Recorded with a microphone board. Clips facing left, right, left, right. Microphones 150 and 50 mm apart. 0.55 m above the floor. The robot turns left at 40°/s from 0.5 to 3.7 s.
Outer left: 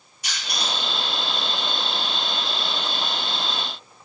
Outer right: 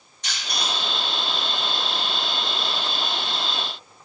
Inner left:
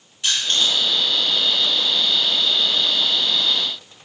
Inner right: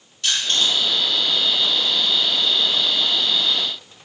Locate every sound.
0.2 s crushing: 10° left (ahead or behind), 1.7 m; by 0.7 s 5° left (ahead or behind), 1.7 m